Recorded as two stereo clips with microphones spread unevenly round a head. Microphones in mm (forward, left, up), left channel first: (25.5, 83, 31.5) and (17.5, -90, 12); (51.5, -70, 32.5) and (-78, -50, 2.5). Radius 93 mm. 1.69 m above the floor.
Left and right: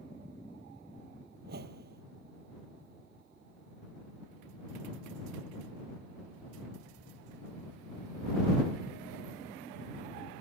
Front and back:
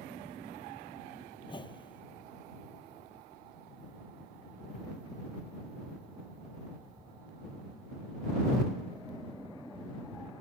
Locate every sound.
1.4 s a whoosh: 60° right